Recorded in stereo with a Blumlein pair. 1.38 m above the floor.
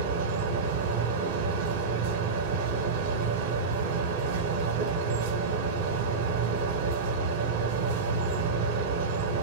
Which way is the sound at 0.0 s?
50° right.